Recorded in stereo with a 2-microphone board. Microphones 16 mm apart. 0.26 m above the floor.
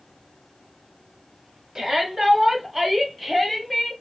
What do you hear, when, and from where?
1.8 s a shout: 35° right (ahead or behind), 1.3 m; by 3.9 s 5° right (ahead or behind), 1.5 m